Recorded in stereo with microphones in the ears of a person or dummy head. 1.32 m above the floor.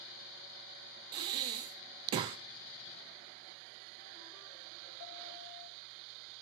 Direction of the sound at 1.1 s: 25° right (ahead or behind).